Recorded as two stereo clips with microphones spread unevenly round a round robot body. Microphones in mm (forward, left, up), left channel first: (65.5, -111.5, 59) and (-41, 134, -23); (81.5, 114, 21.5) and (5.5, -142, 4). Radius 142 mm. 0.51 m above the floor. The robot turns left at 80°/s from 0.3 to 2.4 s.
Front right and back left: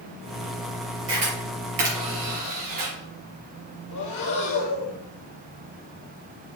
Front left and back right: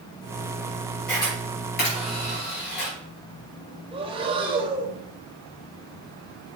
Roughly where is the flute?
No flute in this recording.